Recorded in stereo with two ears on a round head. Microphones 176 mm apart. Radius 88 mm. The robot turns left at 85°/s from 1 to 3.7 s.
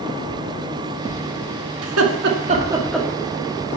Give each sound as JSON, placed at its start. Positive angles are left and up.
{"t": 1.8, "sound": "laughter", "side_deg": -85, "distance_m": 1.9}